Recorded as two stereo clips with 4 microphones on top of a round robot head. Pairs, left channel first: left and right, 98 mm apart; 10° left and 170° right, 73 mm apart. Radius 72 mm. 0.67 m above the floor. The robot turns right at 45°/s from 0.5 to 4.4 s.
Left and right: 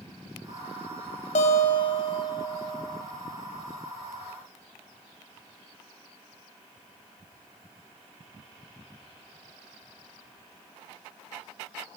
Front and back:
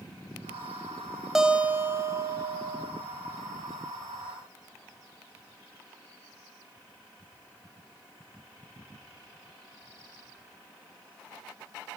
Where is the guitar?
105° left, 2.5 m; by 2.9 s 175° left, 2.5 m.